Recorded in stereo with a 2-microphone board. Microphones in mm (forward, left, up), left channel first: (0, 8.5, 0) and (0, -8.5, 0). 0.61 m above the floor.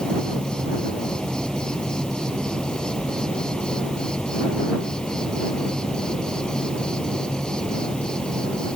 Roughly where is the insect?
Left.